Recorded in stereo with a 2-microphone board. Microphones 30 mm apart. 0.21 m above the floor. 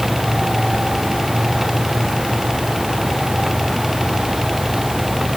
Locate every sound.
Only background noise.